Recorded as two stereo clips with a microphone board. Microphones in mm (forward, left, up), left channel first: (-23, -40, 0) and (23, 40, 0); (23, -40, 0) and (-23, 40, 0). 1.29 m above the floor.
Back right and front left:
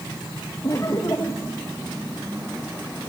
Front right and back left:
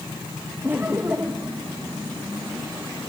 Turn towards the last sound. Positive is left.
turn(degrees=-170)